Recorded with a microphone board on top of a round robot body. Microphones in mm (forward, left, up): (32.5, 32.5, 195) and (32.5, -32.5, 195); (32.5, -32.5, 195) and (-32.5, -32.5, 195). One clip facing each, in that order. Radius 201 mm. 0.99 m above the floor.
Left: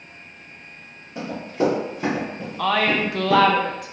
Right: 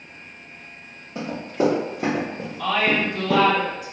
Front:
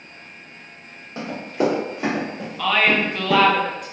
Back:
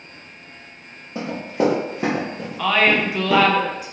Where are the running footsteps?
170° right, 1.4 m; by 3.4 s 45° right, 1.1 m.